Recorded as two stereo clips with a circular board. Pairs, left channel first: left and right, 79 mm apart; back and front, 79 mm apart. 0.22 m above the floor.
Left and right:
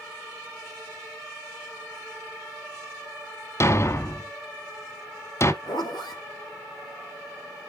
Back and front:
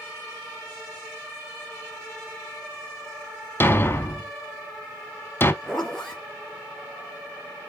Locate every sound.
3.6 s a thud: 130° left, 0.7 m
5.6 s a zipper: 100° left, 3 m